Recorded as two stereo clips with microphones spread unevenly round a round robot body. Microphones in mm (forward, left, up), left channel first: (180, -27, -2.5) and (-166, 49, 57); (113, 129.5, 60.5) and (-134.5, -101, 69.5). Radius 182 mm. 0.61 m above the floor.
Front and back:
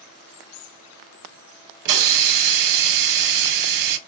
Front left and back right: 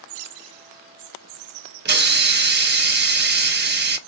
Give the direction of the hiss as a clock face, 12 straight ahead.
6 o'clock.